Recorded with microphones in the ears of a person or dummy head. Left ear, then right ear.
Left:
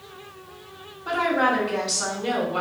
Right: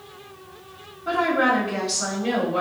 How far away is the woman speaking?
About 1.6 m.